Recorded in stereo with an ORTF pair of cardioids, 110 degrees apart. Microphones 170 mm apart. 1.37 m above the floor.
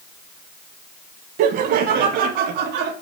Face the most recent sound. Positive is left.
turn(degrees=-80)